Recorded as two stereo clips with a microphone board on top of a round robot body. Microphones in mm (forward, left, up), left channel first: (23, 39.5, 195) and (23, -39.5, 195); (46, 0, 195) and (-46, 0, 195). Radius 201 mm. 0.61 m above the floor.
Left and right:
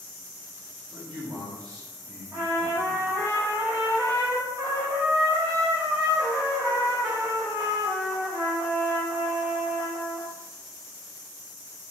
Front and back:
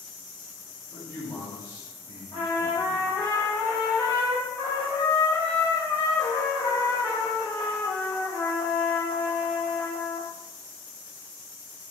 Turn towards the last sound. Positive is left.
turn(degrees=-45)